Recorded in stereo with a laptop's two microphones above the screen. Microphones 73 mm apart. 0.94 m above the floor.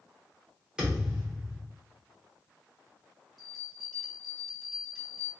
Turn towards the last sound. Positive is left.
turn(degrees=0)  # may be behind; listen again after turning